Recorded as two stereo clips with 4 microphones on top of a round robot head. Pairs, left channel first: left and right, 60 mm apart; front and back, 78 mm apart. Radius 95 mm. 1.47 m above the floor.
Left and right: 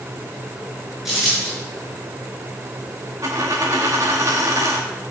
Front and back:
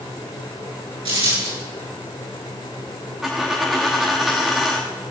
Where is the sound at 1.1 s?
175° right, 8 m.